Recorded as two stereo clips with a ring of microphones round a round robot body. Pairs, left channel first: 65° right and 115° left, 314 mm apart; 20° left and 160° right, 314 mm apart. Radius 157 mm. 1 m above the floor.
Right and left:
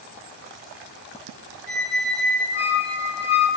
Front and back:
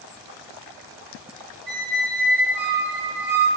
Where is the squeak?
145° right, 2.0 m.